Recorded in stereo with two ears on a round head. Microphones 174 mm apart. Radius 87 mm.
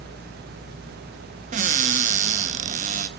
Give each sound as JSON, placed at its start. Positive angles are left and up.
{"t": 1.5, "sound": "a cupboard door", "side_deg": -40, "distance_m": 0.5}